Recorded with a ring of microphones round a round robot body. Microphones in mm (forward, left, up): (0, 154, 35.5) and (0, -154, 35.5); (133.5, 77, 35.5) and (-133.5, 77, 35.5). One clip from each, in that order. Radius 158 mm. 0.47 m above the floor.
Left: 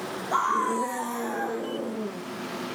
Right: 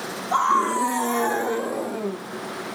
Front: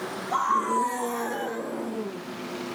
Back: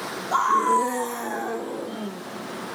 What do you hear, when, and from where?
0.3 s a scream: straight behind, 1.1 m; by 2.2 s 90° right, 1.6 m